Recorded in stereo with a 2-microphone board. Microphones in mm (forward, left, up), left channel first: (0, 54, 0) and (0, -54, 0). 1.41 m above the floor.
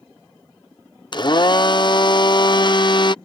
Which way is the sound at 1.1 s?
45° left (ahead or behind).